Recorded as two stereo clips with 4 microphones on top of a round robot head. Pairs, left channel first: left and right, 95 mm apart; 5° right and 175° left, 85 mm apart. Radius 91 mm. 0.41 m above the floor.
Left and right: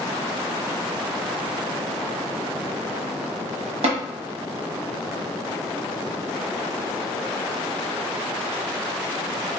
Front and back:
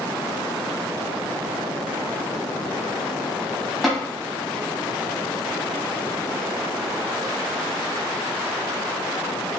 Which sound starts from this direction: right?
Tapping, at 3.8 s.